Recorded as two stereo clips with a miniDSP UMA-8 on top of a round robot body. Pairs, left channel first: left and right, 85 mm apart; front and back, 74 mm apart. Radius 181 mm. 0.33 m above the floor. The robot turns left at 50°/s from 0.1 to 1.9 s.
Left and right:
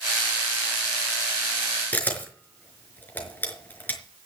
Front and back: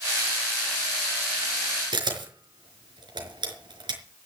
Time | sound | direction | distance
1.9 | a camera shutter | 160° left | 4.5 m